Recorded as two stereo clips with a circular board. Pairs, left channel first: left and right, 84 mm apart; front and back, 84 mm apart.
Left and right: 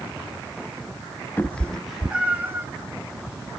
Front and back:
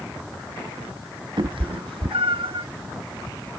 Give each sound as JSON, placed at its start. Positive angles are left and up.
{"t": 1.4, "sound": "a cat meowing", "azimuth_deg": 155, "distance_m": 0.6}